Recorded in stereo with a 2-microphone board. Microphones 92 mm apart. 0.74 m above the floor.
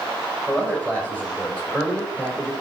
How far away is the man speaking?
About 4 m.